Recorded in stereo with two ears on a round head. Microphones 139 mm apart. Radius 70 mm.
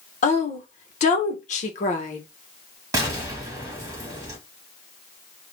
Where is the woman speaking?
50° left (ahead or behind), 0.9 m.